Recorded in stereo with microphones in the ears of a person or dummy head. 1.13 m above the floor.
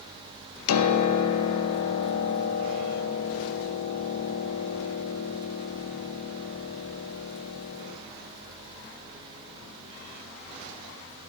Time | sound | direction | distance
0.7 | a piano | 85° left | 0.7 m